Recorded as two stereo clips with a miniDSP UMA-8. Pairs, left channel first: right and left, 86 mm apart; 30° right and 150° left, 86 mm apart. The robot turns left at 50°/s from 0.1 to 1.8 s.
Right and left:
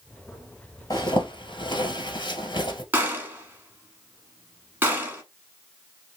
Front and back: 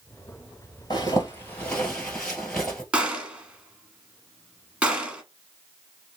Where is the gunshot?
95° left, 1.0 m.